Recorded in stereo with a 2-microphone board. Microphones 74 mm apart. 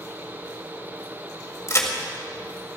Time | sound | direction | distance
1.7 | a crack | 40° left (ahead or behind) | 2 m